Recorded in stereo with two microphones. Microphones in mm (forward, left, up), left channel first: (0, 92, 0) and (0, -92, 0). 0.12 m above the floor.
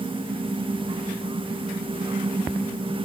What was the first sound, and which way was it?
Only background noise.